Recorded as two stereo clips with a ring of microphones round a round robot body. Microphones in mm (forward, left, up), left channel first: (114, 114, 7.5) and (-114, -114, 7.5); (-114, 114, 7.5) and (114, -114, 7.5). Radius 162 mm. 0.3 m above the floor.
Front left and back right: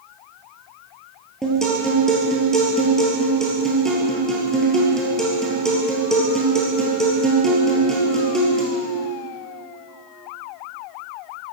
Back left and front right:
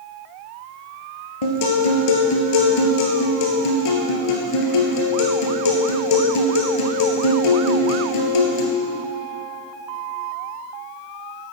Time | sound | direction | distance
1.4 | a guitar | 135° left | 2 m